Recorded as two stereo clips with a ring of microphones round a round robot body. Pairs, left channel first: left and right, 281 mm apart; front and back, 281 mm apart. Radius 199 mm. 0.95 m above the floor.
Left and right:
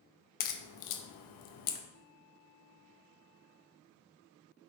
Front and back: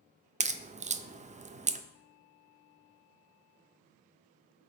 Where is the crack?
110° left, 0.5 m.